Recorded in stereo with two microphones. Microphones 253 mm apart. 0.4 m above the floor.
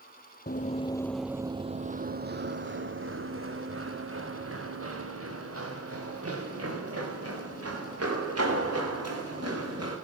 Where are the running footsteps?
40° left (ahead or behind), 0.7 m; by 9.9 s 70° right (ahead or behind), 5.5 m.